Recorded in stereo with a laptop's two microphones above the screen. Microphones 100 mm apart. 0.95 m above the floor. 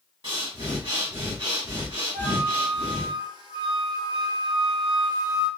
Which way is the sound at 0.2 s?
60° right (ahead or behind).